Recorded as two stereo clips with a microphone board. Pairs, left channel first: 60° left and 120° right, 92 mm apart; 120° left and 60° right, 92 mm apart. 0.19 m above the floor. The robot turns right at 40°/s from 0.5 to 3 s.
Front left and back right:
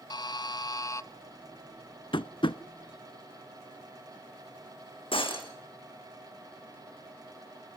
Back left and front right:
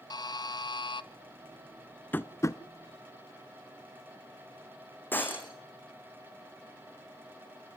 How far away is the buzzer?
About 0.7 m.